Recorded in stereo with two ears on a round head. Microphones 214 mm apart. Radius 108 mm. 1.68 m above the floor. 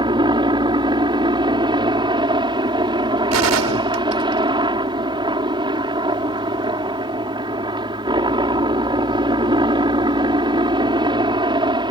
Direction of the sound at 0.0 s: 20° right (ahead or behind).